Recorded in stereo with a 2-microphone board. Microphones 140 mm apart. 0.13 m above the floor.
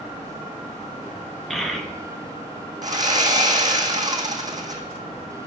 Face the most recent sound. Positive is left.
turn(degrees=-30)  # may be behind; listen again after turning